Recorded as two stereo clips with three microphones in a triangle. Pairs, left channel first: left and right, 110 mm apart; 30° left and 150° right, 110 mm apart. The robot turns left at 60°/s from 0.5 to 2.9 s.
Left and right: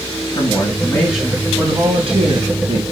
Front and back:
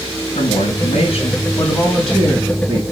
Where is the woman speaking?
35° left, 4 m; by 2.8 s 105° right, 4 m.